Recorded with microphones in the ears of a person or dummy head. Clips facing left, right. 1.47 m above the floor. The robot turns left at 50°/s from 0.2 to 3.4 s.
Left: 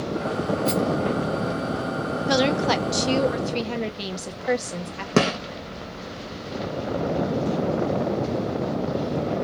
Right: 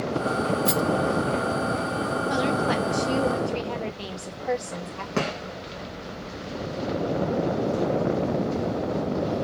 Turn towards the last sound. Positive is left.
turn(degrees=55)  # may be behind; listen again after turning